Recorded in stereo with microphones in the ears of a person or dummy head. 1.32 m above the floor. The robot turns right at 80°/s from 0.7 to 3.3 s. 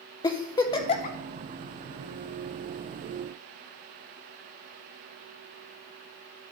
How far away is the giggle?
About 0.6 m.